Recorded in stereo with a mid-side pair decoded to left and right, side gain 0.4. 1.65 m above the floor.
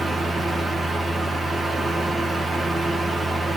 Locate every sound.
0.0 s a fan: 25° right, 2.5 m